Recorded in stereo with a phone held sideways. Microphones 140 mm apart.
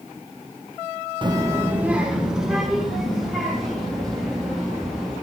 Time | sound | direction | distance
1.2 | a child speaking | 35° right (ahead or behind) | 0.6 m